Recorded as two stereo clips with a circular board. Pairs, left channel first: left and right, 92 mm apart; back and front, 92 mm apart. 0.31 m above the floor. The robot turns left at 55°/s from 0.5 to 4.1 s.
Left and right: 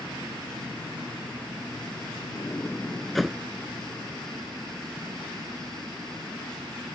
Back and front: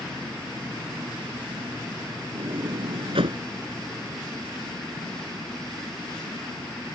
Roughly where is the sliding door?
Ahead left.